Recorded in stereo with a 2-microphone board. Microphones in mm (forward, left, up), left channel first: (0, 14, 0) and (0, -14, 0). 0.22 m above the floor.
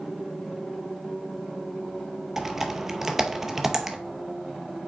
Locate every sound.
2.4 s typing on a keyboard: 10° right (ahead or behind), 0.7 m